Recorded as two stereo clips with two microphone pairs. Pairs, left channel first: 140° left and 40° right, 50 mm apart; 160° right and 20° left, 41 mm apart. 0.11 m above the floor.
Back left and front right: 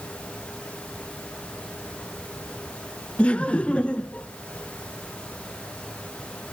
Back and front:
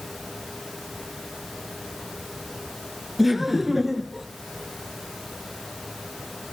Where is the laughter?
100° left, 1.2 m.